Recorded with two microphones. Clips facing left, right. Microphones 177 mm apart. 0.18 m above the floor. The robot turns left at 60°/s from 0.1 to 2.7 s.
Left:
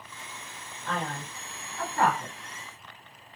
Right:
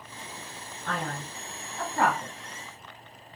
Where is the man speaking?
50° right (ahead or behind), 2 m; by 2.3 s centre (ahead or behind), 2 m.